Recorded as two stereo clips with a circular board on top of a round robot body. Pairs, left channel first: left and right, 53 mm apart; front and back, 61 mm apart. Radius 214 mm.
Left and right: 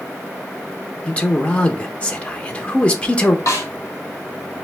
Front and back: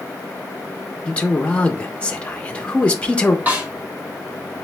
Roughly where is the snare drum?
Behind left.